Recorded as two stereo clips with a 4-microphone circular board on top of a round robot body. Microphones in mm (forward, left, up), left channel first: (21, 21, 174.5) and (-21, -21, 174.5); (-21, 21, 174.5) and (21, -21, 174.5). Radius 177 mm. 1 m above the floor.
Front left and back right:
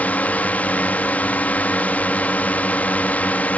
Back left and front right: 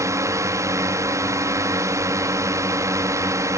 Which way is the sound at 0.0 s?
20° right.